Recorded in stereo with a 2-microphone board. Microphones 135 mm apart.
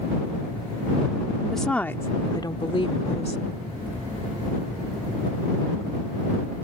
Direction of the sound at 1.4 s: 5° right (ahead or behind).